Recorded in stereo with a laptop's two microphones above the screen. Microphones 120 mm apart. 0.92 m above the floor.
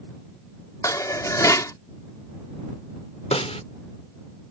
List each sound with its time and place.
0.8 s dishes clattering: 25° left (ahead or behind)
3.3 s a snare drum: 60° left (ahead or behind)